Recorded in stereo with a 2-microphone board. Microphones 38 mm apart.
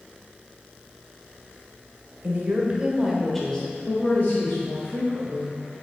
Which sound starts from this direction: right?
A woman speaking, at 2.2 s.